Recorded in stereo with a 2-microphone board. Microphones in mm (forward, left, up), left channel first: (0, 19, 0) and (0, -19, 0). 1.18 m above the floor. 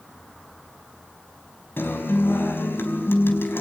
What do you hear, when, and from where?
1.8 s a guitar: 80° left, 4.5 m